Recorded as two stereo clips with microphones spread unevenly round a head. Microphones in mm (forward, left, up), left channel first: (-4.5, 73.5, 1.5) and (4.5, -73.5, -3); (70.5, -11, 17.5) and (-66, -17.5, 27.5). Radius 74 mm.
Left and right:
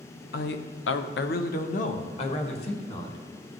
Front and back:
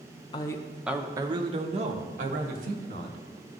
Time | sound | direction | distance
0.3 | a man speaking | 65° left | 0.6 m